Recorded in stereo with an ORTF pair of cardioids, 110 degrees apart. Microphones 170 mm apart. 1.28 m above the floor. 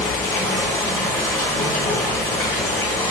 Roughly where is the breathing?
I don't hear breathing.